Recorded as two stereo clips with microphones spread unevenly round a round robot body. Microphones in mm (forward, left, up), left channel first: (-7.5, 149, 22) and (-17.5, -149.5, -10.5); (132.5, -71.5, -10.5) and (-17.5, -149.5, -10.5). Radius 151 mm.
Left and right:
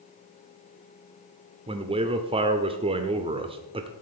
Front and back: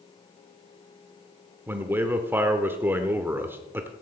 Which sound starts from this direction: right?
A man speaking, at 1.7 s.